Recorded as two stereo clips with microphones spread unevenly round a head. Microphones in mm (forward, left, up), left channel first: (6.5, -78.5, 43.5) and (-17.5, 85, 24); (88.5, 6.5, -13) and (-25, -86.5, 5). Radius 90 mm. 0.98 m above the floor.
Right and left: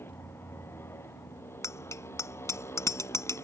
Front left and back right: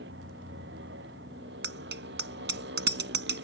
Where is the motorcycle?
160° right.